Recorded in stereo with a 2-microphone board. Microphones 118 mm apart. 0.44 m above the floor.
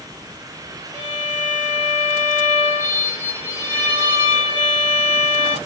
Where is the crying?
I don't hear crying.